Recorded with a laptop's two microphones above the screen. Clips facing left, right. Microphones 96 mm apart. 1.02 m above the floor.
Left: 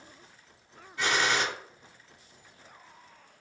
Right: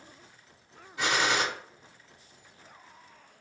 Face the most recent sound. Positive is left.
turn(degrees=-20)  # may be behind; listen again after turning